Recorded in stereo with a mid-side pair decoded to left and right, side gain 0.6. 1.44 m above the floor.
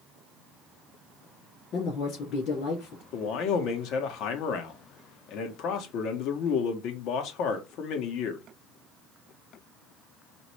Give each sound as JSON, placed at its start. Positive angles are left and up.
{"t": 1.7, "sound": "a woman speaking", "azimuth_deg": 60, "distance_m": 3.0}
{"t": 3.1, "sound": "a man speaking", "azimuth_deg": 65, "distance_m": 1.5}